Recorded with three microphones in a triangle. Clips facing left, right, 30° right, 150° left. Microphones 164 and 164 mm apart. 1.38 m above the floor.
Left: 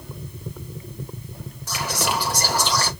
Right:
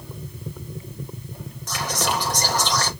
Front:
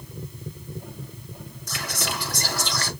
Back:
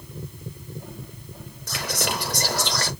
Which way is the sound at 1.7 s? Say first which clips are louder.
Even, back 4 dB; 170° left.